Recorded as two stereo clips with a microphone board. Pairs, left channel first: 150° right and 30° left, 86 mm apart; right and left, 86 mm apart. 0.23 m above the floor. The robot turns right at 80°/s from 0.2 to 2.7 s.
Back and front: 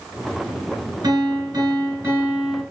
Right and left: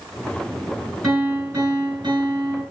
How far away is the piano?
About 2 m.